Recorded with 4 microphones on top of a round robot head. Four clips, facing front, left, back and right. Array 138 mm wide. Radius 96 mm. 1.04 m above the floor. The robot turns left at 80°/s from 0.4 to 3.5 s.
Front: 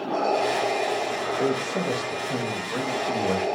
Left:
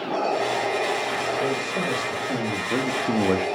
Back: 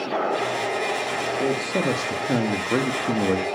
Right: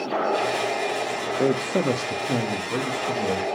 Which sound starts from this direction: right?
A man speaking, at 1.4 s.